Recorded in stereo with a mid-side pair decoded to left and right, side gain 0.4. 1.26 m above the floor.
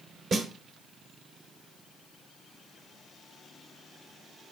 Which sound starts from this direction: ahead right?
A snare drum, at 0.3 s.